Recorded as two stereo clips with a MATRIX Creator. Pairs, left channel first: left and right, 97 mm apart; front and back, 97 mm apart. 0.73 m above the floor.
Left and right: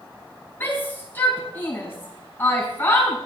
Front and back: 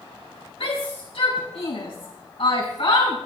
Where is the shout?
20° left, 5 m.